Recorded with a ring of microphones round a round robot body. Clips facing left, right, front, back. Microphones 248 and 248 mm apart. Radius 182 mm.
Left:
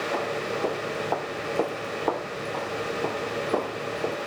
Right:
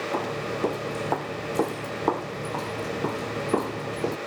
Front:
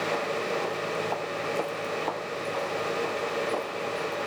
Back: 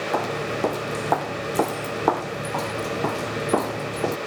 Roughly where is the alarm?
I don't hear an alarm.